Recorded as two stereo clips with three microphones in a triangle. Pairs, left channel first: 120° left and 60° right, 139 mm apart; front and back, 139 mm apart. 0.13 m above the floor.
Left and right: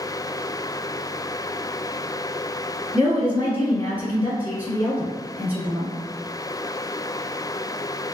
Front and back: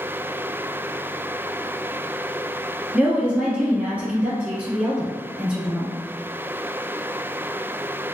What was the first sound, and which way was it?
A woman speaking, 115° right.